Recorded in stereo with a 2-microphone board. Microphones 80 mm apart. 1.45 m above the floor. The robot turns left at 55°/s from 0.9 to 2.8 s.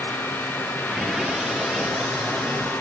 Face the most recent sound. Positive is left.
No sound to turn to.